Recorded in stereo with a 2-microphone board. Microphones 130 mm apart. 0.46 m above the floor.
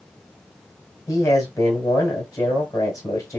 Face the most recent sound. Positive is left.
turn(degrees=25)  # may be behind; listen again after turning